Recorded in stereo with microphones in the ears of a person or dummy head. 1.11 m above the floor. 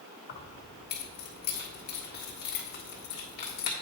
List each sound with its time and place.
0.3 s keys jangling: 55° left (ahead or behind), 1.5 m